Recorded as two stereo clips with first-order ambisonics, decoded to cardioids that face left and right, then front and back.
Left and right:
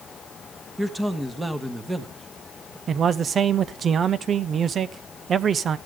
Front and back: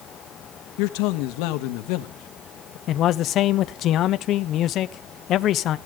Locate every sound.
0.8 s a man speaking: 5° right, 1.3 m
2.9 s a man speaking: 35° right, 0.6 m